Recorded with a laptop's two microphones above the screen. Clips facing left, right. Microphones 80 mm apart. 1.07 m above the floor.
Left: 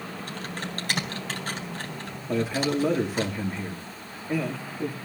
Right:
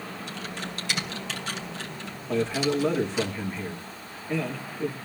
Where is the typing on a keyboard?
45° left (ahead or behind), 3.5 m.